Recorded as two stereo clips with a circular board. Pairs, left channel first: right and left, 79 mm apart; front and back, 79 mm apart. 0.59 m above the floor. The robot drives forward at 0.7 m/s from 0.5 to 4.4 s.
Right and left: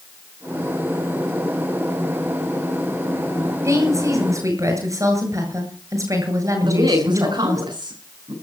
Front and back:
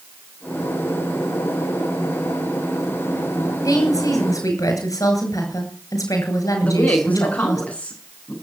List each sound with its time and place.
3.6 s a woman speaking: 40° left, 8.5 m; by 7.6 s 45° left, 8 m
6.6 s a woman speaking: 70° left, 5.5 m